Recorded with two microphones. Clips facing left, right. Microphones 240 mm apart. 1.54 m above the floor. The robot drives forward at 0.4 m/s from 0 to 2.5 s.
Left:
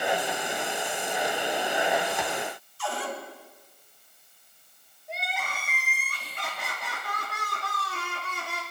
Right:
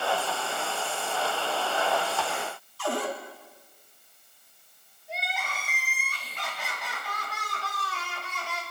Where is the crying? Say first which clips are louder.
Left 1 dB; 55° left (ahead or behind), 3 m.